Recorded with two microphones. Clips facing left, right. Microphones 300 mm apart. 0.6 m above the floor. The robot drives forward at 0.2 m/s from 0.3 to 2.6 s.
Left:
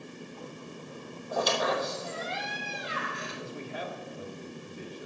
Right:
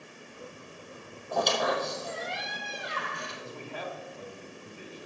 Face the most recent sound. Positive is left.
turn(degrees=20)  # may be behind; listen again after turning